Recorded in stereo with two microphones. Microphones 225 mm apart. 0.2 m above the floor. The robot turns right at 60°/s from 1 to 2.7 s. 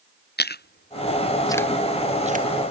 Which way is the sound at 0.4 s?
45° left (ahead or behind).